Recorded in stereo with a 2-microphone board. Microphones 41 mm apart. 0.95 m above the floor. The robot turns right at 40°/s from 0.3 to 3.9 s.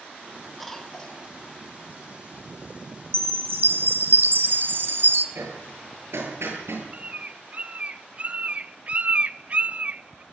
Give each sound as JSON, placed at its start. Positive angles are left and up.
{"t": 0.6, "sound": "a cough", "side_deg": 0, "distance_m": 2.5}
{"t": 3.1, "sound": "a chime", "azimuth_deg": -95, "distance_m": 1.9}
{"t": 5.3, "sound": "hammering", "side_deg": -80, "distance_m": 8.5}
{"t": 6.9, "sound": "a bird", "side_deg": -35, "distance_m": 0.5}